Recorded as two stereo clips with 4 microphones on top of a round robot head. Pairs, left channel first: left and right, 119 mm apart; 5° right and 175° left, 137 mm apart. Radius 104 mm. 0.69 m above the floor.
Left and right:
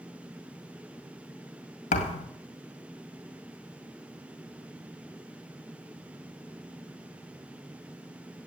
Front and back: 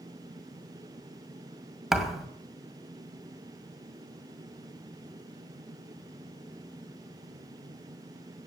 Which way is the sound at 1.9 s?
90° left.